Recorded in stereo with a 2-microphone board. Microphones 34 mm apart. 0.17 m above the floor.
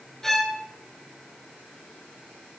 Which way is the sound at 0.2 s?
10° left (ahead or behind).